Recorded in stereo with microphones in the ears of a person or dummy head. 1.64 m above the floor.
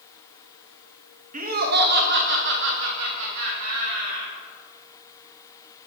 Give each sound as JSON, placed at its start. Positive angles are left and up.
{"t": 1.3, "sound": "laughter", "side_deg": -40, "distance_m": 0.9}